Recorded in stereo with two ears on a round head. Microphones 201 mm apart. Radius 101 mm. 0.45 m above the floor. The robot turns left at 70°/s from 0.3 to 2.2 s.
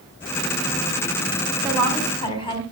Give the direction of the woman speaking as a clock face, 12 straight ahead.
6 o'clock.